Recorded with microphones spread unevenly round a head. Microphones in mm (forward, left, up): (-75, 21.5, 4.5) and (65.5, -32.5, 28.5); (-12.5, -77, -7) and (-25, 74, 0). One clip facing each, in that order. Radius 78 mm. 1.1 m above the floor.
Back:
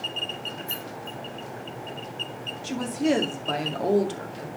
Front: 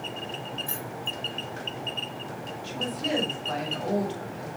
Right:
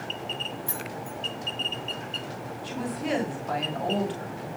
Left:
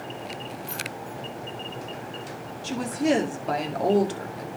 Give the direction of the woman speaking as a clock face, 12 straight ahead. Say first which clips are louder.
Back 8 dB, left 7 dB; 8 o'clock.